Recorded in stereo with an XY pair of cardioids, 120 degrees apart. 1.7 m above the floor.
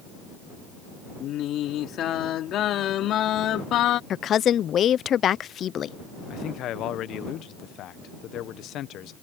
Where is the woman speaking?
50° left.